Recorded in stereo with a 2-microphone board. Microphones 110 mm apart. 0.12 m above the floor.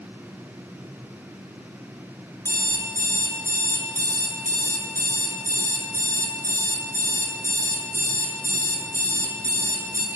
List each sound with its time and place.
2.5 s an alarm clock: 30° right (ahead or behind), 0.6 m